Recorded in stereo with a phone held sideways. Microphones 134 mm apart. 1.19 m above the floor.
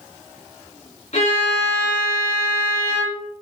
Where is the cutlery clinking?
No cutlery clinking in this recording.